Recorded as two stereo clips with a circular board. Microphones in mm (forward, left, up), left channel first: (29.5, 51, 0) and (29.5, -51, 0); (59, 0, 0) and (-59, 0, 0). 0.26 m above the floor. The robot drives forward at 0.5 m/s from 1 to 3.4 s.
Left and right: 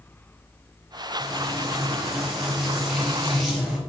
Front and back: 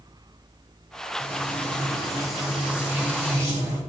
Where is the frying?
5° right, 1.4 m; by 3.8 s 175° right, 1.4 m.